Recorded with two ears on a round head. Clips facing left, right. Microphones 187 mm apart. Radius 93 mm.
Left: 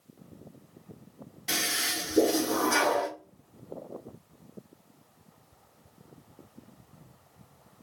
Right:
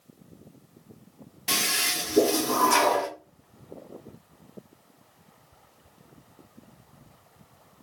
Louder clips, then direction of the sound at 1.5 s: Right 2 dB; 75° right (ahead or behind).